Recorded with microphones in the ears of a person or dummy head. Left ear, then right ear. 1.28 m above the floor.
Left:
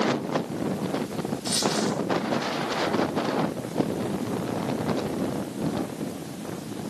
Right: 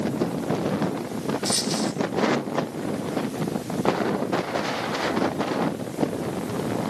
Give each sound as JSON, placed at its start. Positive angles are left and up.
{"t": 1.4, "sound": "a dropped coin", "side_deg": -5, "distance_m": 1.7}